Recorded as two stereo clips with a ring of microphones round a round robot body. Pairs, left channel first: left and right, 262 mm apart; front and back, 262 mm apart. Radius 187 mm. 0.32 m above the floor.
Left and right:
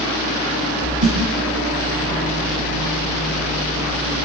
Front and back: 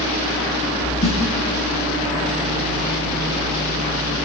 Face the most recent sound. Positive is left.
turn(degrees=-55)